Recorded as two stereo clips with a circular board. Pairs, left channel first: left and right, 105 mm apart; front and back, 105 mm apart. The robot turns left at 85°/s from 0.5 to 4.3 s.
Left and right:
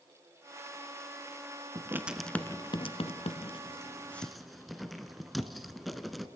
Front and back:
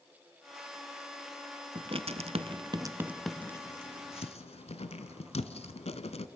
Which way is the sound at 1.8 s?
140° right.